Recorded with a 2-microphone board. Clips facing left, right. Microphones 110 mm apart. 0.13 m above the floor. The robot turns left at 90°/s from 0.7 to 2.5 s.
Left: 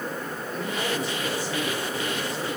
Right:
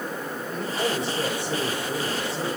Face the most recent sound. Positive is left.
turn(degrees=-160)